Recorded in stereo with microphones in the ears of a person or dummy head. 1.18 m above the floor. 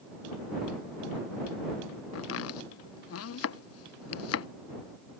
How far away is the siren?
I don't hear a siren.